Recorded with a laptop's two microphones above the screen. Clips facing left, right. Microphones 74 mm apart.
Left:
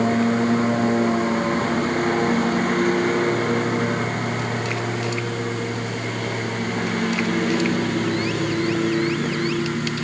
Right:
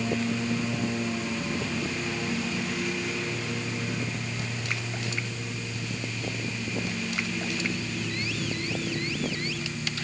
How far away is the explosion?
No explosion in this recording.